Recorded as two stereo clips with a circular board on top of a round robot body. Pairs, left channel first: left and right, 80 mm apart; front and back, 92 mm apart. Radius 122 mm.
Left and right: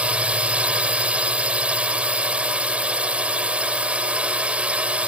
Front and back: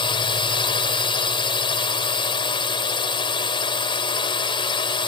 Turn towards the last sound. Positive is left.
turn(degrees=-15)